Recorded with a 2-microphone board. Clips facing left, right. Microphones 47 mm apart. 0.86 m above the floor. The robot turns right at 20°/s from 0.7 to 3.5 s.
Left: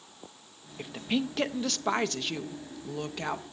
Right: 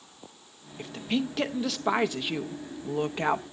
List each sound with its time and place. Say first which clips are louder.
0.8 s a woman speaking: right 1 dB; 170° left, 0.6 m; by 3.4 s 135° right, 0.6 m